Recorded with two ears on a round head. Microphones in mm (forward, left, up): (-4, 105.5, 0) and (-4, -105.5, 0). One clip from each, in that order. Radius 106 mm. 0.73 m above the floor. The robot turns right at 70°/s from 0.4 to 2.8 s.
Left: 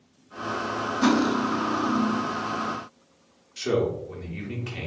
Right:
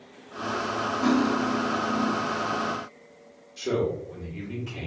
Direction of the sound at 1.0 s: 45° left.